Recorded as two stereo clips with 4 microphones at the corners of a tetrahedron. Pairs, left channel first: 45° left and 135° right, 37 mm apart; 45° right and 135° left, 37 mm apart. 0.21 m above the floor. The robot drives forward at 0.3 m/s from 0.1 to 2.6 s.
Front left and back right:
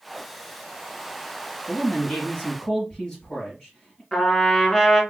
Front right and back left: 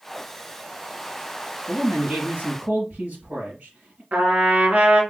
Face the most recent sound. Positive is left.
turn(degrees=120)